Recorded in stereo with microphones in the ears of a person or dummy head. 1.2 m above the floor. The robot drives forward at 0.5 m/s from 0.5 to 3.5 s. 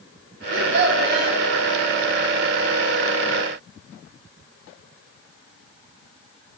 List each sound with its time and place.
0.5 s a child speaking: 70° right (ahead or behind), 0.9 m; by 1.4 s 55° right (ahead or behind), 1.0 m